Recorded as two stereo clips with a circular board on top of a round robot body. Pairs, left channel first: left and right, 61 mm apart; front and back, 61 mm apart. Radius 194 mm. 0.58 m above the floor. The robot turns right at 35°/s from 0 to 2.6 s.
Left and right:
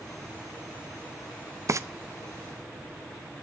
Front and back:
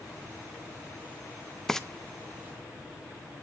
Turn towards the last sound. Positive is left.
turn(degrees=-50)